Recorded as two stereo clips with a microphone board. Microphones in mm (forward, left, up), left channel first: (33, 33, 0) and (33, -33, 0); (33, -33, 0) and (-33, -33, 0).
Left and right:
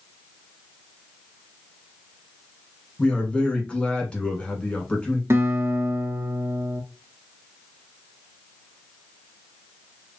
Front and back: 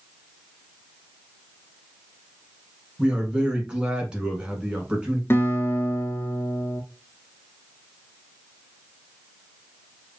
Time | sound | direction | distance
3.0 | a man speaking | 135° left | 1.0 m
5.3 | a guitar | 45° right | 0.7 m